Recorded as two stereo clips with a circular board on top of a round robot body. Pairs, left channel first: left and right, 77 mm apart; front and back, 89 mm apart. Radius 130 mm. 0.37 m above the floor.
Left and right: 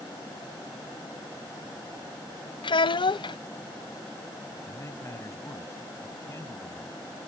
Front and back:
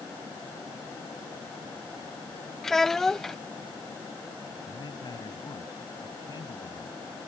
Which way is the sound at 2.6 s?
85° left.